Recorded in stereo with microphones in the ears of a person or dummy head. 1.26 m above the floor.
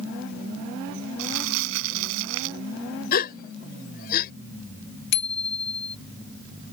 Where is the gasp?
50° left (ahead or behind).